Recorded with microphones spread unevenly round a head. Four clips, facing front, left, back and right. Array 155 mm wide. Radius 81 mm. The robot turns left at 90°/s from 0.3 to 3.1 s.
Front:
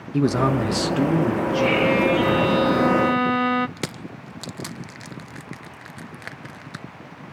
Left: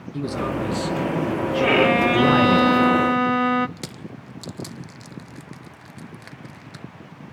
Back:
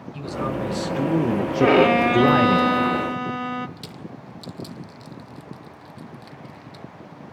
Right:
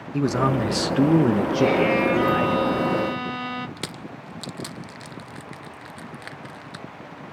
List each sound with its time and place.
0.1 s a man speaking: 25° right, 1.6 m; by 2.6 s 130° left, 1.6 m
1.6 s a violin: 175° right, 0.7 m; by 3.7 s 50° left, 0.7 m
3.8 s crushing: 10° right, 1.3 m